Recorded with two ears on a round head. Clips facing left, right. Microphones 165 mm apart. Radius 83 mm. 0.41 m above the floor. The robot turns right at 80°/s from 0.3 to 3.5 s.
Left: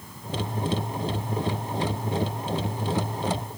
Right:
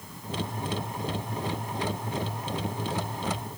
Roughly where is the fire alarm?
I don't hear a fire alarm.